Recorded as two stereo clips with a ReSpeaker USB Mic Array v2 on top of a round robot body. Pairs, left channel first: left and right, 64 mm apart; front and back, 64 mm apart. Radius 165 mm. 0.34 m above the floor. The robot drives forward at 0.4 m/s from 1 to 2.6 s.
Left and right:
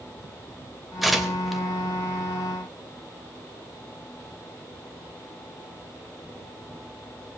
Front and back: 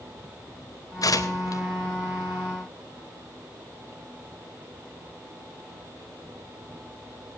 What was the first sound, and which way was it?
Tearing paper, straight ahead.